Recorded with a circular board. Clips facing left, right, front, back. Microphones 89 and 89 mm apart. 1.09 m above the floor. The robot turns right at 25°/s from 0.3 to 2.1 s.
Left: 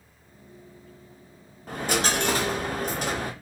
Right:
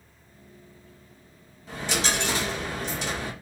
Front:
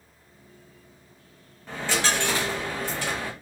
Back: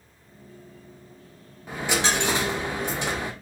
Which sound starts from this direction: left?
A dropped coin, at 1.7 s.